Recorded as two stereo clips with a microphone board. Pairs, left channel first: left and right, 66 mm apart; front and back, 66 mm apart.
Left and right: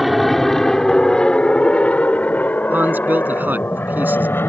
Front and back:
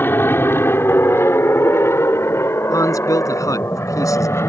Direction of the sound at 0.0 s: Straight ahead.